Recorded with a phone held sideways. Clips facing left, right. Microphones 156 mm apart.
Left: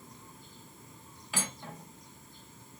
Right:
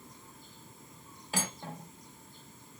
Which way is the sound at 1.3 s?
35° right (ahead or behind).